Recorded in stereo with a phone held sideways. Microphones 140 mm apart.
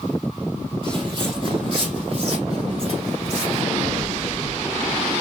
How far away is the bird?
About 0.7 m.